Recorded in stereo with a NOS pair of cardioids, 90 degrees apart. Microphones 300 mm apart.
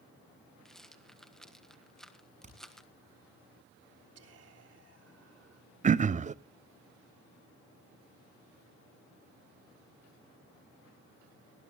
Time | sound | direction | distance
0.7 | a rattle | straight ahead | 1.5 m
2.4 | hammering | 25° right | 7 m
4.2 | whispering | 55° right | 3.5 m
5.8 | throat clearing | 25° right | 0.5 m